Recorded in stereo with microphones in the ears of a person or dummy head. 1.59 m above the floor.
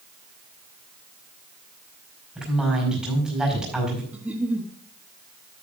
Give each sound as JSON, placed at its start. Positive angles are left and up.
{"t": 2.4, "sound": "a woman speaking", "side_deg": 0, "distance_m": 5.0}
{"t": 4.1, "sound": "a giggle", "side_deg": -5, "distance_m": 1.1}